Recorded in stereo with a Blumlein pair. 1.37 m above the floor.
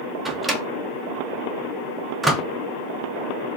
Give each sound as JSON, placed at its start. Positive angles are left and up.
{"t": 0.2, "sound": "a microwave", "azimuth_deg": -5, "distance_m": 0.7}